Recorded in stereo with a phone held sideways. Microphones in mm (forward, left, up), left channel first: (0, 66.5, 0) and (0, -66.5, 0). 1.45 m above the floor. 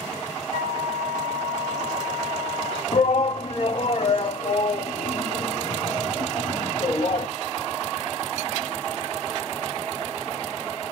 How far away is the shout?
About 2 m.